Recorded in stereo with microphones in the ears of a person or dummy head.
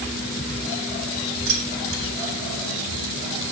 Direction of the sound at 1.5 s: 65° right (ahead or behind).